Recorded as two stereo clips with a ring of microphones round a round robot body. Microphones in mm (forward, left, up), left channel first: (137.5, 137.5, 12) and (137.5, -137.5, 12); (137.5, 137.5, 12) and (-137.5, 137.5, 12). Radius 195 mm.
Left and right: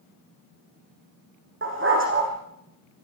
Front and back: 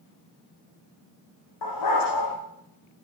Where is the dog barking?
45° right, 9.5 m.